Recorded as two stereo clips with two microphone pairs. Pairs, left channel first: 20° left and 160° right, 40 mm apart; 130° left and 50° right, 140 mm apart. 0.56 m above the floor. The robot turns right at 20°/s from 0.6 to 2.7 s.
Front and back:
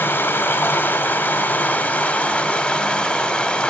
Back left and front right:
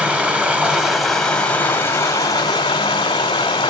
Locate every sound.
0.0 s running water: 35° left, 1.2 m; by 3.7 s 75° left, 1.2 m